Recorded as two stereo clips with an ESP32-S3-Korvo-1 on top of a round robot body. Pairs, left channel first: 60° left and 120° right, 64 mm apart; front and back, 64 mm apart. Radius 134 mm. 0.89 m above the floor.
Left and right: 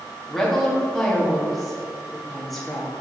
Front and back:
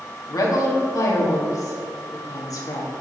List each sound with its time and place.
0.3 s a woman speaking: 25° right, 1.4 m